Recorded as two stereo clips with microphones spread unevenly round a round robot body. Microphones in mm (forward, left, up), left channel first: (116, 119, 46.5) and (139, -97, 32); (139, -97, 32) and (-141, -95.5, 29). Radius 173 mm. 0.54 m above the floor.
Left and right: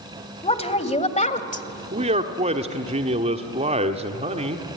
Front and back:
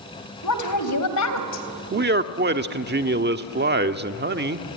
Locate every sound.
0.4 s a woman speaking: 35° left, 3 m; by 1.7 s 40° left, 2 m
1.9 s a man speaking: 140° right, 1.1 m